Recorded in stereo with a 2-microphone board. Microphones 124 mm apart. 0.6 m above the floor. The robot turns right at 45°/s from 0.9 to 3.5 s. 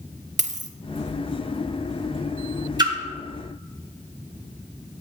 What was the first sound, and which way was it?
A dropped coin, 65° right (ahead or behind).